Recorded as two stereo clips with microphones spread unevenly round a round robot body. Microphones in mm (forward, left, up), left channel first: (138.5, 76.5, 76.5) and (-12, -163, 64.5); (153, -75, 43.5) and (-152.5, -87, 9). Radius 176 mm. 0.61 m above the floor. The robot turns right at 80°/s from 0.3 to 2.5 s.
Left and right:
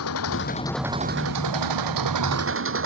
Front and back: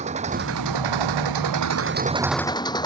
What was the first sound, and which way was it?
An engine running, 110° left.